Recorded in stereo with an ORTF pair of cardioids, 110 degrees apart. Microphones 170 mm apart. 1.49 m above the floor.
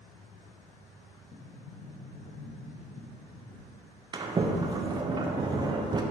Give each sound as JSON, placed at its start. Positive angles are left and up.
{"t": 1.3, "sound": "a sliding door", "azimuth_deg": 60, "distance_m": 0.9}
{"t": 4.1, "sound": "a sliding door", "azimuth_deg": -25, "distance_m": 0.8}